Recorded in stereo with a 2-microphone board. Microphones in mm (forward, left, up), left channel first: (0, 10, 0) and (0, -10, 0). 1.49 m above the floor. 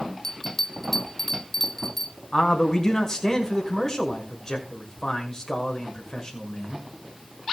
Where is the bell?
25° left (ahead or behind), 2.5 m.